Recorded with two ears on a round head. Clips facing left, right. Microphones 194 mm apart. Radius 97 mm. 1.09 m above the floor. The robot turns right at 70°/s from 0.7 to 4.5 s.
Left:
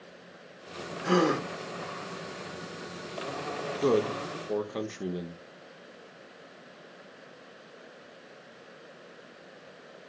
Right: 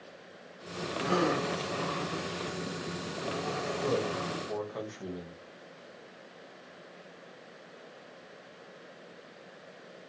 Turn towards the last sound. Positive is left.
turn(degrees=140)